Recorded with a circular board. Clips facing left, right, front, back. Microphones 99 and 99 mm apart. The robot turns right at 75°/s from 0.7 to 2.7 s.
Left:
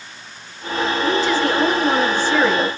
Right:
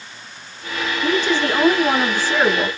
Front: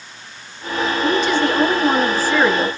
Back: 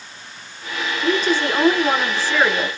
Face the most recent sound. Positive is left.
turn(degrees=-45)